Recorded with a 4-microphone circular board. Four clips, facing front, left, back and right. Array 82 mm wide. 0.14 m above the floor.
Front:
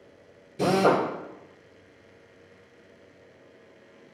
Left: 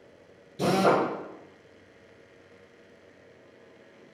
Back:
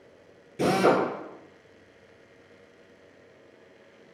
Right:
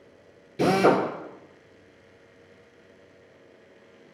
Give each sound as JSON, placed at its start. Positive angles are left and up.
{"t": 0.6, "sound": "a drill", "azimuth_deg": -115, "distance_m": 2.5}